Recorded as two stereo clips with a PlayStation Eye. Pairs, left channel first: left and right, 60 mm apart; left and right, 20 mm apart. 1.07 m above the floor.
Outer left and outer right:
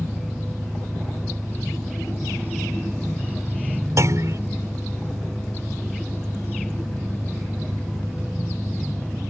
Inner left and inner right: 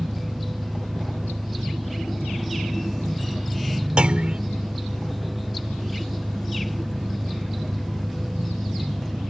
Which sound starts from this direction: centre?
An engine running, at 0.0 s.